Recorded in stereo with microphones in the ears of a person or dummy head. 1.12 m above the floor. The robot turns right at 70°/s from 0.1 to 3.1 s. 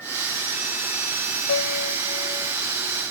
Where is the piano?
90° left; by 2.5 s 165° left.